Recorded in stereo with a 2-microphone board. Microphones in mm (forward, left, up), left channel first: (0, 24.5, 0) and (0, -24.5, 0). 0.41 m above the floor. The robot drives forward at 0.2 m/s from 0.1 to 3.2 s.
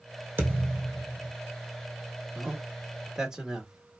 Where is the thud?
45° right (ahead or behind), 1.4 m; by 1.3 s 40° right (ahead or behind), 1.5 m.